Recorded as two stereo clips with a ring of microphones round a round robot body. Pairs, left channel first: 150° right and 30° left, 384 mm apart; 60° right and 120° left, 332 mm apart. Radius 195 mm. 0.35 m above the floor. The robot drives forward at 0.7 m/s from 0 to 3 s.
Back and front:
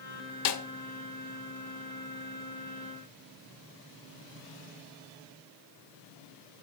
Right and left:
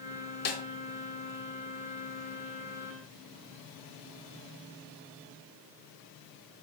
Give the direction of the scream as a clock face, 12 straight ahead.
I don't hear a scream.